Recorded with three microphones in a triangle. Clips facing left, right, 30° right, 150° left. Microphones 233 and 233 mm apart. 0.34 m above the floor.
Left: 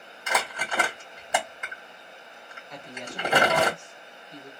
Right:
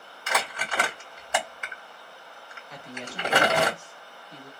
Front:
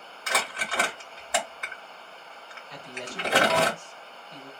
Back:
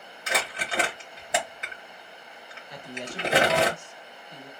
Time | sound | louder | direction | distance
0.3 | crumpling | left 1 dB, back 1 dB | 150° left | 1.6 m
2.7 | a woman speaking | even, back 2 dB | 160° right | 0.9 m